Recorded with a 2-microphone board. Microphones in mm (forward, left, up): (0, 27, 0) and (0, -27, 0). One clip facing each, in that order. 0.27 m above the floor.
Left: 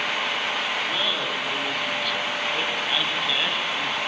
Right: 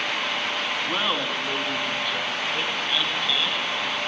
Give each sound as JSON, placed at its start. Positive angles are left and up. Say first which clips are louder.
{"t": 0.9, "sound": "laughter", "louder": "right 1 dB", "side_deg": -45, "distance_m": 2.5}